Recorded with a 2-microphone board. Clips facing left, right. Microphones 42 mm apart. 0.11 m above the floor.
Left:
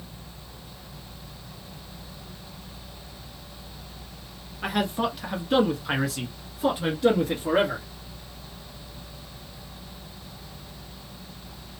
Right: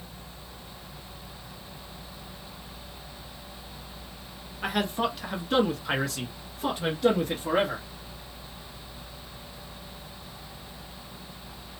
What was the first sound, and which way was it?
A man speaking, centre (ahead or behind).